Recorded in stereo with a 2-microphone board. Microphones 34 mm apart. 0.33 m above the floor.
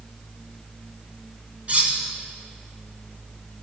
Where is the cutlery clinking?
40° right (ahead or behind), 1.6 m.